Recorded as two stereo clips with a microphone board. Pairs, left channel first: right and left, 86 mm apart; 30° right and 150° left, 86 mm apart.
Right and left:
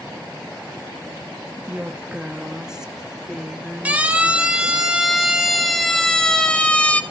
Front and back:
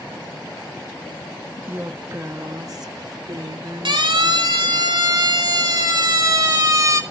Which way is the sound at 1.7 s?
140° left.